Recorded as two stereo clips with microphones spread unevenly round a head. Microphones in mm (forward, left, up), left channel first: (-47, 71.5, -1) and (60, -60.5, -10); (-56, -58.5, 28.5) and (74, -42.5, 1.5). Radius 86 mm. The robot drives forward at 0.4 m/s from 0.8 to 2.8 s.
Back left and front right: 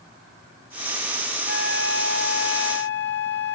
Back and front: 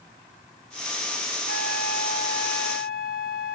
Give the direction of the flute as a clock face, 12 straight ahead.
7 o'clock.